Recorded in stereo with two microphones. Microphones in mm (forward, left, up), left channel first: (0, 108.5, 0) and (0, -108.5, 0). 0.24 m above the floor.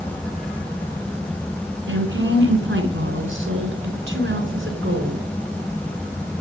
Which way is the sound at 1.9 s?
65° right (ahead or behind).